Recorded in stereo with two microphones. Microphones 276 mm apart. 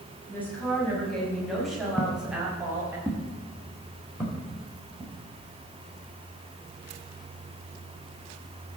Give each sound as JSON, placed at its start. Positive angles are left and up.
{"t": 0.3, "sound": "a woman speaking", "side_deg": 5, "distance_m": 5.0}
{"t": 2.0, "sound": "footsteps", "side_deg": 5, "distance_m": 1.7}